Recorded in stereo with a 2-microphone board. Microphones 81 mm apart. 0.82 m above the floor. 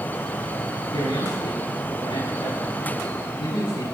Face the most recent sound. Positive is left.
turn(degrees=85)